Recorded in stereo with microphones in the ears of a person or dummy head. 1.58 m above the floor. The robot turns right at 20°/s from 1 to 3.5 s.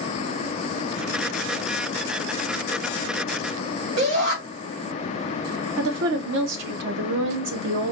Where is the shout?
70° right (ahead or behind), 2 m.